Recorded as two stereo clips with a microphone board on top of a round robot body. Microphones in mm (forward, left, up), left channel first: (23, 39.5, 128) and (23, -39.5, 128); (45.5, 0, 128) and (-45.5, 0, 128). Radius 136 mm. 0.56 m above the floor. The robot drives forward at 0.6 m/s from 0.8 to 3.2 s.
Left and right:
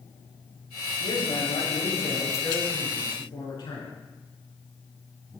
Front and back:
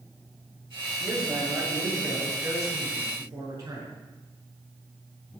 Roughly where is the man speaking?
Behind left.